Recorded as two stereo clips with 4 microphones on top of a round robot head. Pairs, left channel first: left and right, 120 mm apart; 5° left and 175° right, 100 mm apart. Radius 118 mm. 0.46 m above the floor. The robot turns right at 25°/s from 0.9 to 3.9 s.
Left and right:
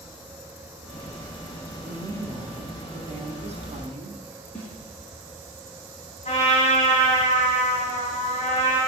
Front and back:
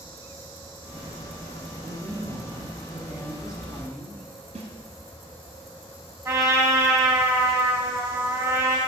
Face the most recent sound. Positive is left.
turn(degrees=130)